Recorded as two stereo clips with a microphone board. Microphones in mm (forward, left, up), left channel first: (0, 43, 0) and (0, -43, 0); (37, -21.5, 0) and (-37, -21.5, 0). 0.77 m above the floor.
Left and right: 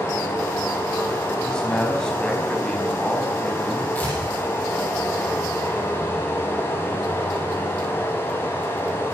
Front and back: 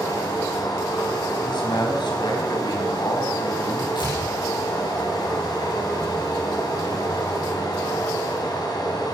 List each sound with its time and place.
0.0 s running water: 25° left, 4.5 m
1.4 s a man speaking: 10° left, 5 m
4.0 s tearing paper: 20° left, 9 m